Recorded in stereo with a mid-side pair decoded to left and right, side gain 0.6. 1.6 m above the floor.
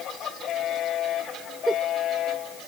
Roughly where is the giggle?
Ahead.